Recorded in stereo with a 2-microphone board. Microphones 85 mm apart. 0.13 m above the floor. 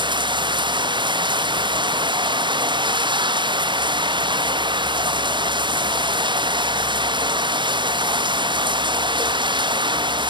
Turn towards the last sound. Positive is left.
turn(degrees=-60)  # may be behind; listen again after turning